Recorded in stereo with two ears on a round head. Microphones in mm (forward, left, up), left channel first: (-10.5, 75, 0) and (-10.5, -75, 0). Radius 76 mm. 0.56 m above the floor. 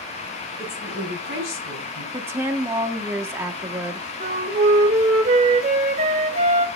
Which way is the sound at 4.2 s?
40° right (ahead or behind).